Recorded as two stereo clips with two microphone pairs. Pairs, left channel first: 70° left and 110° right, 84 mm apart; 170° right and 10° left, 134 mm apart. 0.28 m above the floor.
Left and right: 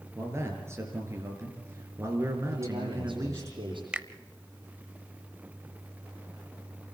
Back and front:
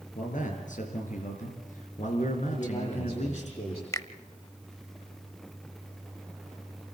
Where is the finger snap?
165° right, 0.7 m.